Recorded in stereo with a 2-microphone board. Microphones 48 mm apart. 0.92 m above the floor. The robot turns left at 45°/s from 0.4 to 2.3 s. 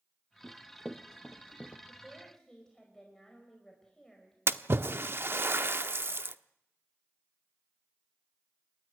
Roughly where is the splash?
Right.